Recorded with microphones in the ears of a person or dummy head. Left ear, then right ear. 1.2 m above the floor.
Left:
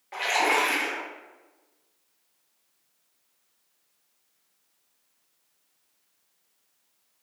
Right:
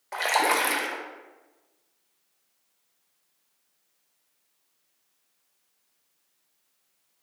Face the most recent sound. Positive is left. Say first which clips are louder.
# even
turn(degrees=-35)  # may be behind; listen again after turning